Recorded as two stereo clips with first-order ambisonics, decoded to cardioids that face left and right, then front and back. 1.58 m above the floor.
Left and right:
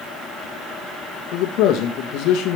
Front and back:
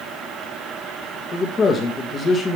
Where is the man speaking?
70° left, 1.6 m.